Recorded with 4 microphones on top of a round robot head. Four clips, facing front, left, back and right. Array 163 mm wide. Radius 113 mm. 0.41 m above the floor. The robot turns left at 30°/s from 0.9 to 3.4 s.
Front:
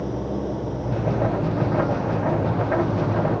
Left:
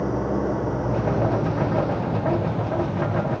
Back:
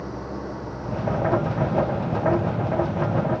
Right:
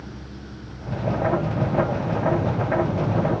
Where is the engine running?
60° left; by 3.4 s 15° right.